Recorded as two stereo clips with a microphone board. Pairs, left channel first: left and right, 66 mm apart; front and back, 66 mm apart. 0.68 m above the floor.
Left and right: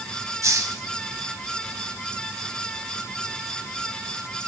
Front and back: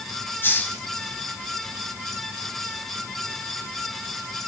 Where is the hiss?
55° right, 2.0 m.